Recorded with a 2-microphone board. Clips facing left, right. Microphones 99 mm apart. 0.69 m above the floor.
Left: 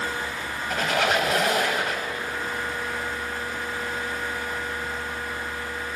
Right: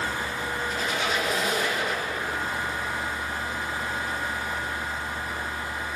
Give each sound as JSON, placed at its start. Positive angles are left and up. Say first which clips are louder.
{"t": 0.7, "sound": "a squeak", "louder": "left 7 dB", "side_deg": 80, "distance_m": 2.5}